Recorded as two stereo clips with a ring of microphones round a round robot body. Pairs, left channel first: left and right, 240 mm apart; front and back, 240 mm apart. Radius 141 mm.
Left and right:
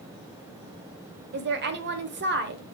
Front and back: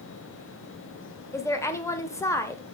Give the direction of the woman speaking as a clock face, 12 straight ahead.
2 o'clock.